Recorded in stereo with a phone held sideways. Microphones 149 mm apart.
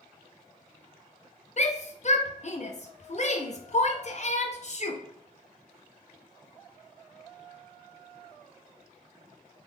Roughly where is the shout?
Left.